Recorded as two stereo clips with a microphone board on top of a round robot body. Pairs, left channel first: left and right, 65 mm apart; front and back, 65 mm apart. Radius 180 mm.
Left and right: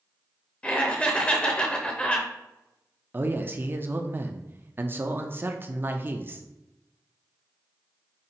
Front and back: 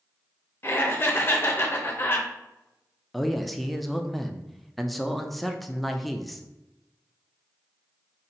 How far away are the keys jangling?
I don't hear keys jangling.